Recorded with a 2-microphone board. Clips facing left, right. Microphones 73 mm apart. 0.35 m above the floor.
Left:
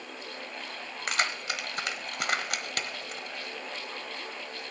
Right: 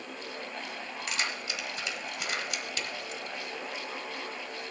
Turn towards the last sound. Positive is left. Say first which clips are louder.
# left 5 dB
turn(degrees=55)  # may be behind; listen again after turning